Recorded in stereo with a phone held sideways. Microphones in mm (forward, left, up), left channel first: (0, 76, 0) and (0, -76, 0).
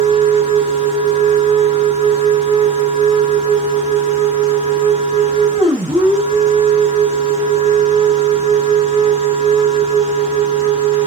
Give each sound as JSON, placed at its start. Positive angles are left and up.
{"t": 0.0, "sound": "a machine running", "side_deg": -50, "distance_m": 6.0}